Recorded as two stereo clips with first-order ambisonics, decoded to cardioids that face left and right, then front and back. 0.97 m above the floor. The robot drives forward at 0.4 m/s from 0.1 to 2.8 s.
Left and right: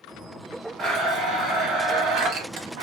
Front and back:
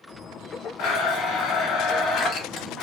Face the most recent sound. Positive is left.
turn(degrees=-75)